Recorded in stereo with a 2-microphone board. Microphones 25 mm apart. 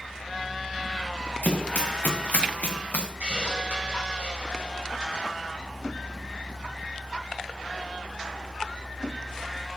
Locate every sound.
1.4 s running footsteps: 85° left, 2.5 m; by 3.1 s 75° left (ahead or behind), 1.8 m
3.2 s a hiss: 55° right (ahead or behind), 4.5 m